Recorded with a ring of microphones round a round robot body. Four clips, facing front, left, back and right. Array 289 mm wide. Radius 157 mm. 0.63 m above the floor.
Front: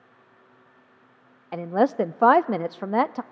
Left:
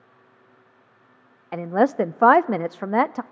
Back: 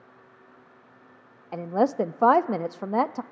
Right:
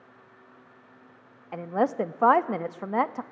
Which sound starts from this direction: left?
A woman speaking, at 1.5 s.